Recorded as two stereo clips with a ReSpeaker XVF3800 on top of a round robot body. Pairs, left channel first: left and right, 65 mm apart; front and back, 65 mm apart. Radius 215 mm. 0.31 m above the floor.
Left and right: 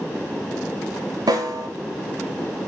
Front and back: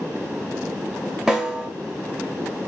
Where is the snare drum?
100° right, 0.5 m.